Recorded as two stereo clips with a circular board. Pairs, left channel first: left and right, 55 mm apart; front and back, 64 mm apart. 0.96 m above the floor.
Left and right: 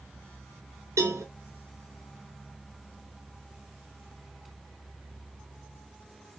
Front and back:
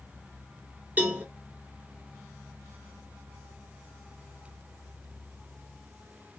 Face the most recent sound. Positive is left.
turn(degrees=-115)